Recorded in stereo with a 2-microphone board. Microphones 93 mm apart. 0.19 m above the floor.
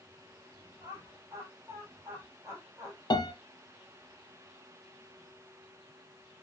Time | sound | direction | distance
0.8 | laughter | 30° right (ahead or behind) | 9.5 m
3.1 | a piano | 55° left (ahead or behind) | 1.7 m